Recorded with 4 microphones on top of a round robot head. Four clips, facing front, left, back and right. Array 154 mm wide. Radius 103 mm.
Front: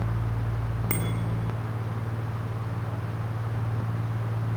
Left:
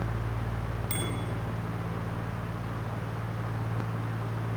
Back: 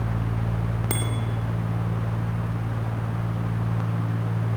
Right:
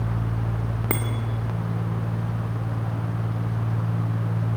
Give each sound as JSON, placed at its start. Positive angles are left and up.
{"t": 0.9, "sound": "a bicycle bell", "azimuth_deg": -105, "distance_m": 2.5}